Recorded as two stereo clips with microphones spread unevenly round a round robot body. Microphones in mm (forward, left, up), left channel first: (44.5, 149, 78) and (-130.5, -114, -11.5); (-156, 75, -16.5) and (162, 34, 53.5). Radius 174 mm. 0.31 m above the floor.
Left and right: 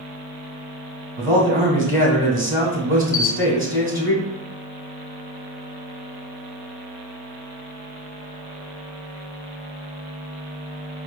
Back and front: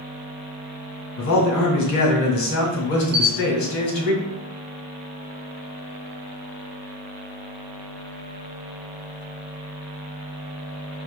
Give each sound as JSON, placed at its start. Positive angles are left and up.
{"t": 1.2, "sound": "a man speaking", "azimuth_deg": 150, "distance_m": 1.6}
{"t": 3.1, "sound": "a camera shutter", "azimuth_deg": 70, "distance_m": 0.5}